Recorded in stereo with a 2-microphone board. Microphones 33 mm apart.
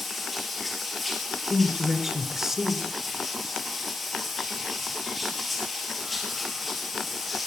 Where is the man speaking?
10° right (ahead or behind), 1.3 m.